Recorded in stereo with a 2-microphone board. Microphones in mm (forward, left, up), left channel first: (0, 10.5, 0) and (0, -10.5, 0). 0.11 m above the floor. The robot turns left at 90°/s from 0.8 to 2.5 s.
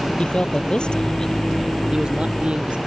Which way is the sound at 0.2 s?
60° left.